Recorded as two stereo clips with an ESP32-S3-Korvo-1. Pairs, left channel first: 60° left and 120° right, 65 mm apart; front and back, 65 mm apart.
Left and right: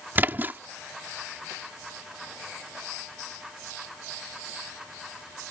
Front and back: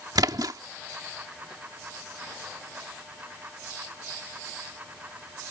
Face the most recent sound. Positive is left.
turn(degrees=180)